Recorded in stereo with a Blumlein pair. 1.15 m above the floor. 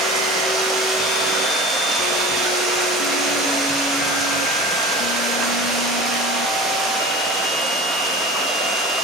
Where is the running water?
10° right, 1.5 m.